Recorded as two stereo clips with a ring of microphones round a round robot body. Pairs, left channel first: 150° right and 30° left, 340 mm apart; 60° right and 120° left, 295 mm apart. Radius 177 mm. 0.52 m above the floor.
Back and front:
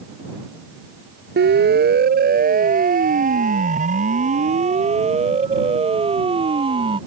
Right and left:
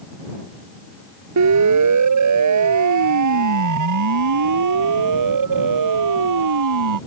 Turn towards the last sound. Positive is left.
turn(degrees=105)